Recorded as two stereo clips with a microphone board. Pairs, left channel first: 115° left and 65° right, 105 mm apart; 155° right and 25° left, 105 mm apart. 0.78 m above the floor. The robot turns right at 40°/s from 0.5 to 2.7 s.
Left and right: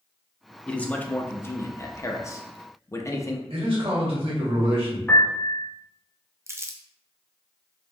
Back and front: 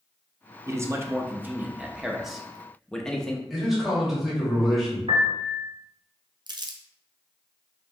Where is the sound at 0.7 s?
45° left, 0.6 m; by 3.4 s 125° left, 0.6 m.